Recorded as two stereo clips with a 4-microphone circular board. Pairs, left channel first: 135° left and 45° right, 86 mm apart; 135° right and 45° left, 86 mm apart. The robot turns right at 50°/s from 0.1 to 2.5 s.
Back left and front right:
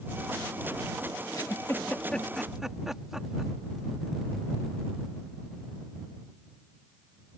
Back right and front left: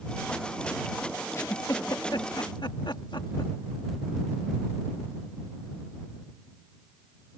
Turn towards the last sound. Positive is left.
turn(degrees=-130)